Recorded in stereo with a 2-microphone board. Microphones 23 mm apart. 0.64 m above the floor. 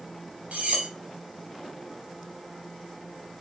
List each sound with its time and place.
0.5 s cutlery clinking: 60° right (ahead or behind), 0.7 m